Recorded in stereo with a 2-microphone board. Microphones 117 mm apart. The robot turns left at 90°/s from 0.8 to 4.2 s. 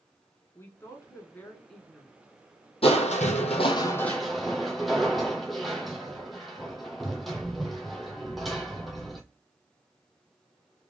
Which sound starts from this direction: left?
A woman speaking, at 0.6 s.